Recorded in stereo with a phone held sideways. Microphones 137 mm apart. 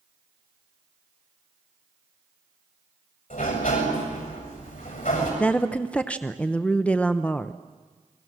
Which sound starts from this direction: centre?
A woman speaking, at 5.4 s.